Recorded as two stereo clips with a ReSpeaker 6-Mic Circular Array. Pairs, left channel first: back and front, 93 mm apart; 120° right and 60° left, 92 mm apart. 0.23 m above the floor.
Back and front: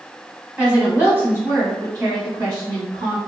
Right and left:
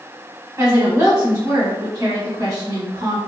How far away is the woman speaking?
About 1.1 m.